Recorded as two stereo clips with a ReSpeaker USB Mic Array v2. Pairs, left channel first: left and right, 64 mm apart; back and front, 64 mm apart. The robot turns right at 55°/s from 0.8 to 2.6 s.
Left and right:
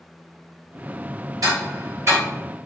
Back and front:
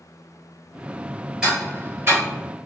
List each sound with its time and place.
1.4 s ticking: 80° right, 2.0 m; by 2.2 s 35° right, 2.0 m